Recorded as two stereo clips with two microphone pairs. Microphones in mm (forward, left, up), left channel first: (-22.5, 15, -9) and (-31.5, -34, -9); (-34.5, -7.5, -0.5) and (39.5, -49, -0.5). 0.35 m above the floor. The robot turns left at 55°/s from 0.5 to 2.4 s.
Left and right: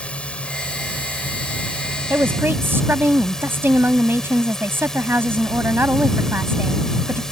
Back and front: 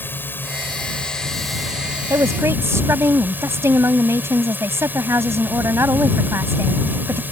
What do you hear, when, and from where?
0.0 s a drone: 115° left; by 7.3 s 10° left
2.1 s a woman speaking: 65° right; by 7.2 s 80° right